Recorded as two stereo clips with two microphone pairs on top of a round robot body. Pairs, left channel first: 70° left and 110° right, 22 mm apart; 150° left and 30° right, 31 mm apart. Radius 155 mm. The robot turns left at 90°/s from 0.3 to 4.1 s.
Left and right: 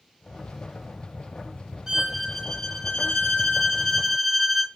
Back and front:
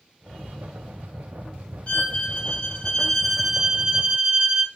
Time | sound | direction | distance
1.9 | a violin | 175° left | 1.0 m